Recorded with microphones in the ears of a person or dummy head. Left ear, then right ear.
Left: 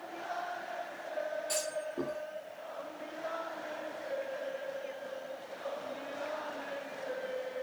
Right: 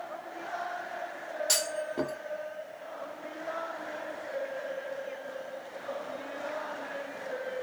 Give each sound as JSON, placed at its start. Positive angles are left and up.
{"t": 1.5, "sound": "a clunk", "side_deg": -35, "distance_m": 1.6}